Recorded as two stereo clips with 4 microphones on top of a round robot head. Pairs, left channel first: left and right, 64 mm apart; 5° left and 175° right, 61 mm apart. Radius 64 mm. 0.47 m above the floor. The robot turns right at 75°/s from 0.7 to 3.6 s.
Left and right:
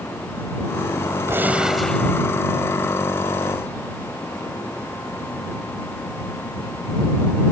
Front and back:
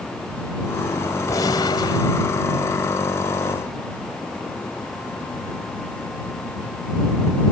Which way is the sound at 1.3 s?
40° right.